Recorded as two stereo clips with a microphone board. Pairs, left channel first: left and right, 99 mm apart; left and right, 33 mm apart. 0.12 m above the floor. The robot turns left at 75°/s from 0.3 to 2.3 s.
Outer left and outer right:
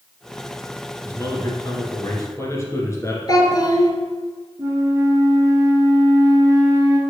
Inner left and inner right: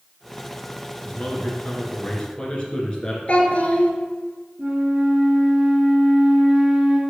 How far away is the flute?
About 1.4 m.